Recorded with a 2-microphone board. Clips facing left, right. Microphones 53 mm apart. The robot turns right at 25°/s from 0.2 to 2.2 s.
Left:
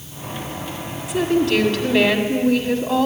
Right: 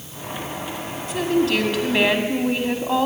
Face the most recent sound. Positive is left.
turn(degrees=-15)  # may be behind; listen again after turning